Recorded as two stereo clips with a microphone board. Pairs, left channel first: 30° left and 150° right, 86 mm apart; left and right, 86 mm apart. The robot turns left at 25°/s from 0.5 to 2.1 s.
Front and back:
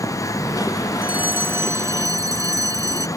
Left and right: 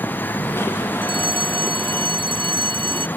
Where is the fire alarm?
75° right; by 3.1 s 105° right.